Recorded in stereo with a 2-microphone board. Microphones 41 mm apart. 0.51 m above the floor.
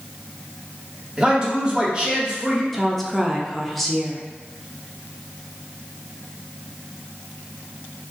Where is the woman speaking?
5° left (ahead or behind), 0.6 m.